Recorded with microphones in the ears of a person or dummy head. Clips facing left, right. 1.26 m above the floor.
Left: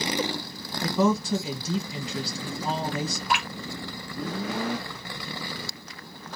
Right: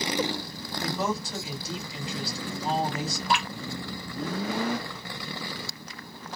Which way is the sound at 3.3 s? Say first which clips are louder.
Right 2 dB; 25° right (ahead or behind).